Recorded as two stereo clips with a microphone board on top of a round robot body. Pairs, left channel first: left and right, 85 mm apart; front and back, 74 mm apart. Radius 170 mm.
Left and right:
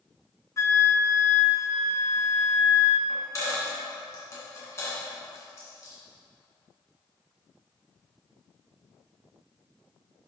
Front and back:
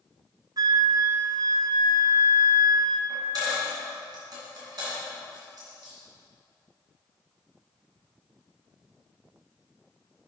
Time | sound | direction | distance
0.6 | a flute | 145° left | 0.6 m
3.1 | a dropped coin | 145° left | 2 m